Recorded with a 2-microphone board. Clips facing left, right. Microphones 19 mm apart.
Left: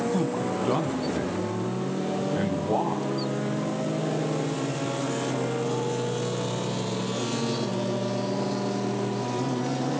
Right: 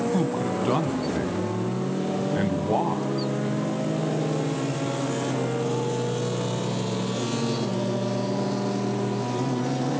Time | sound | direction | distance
0.1 | a man speaking | 20° right (ahead or behind) | 2 m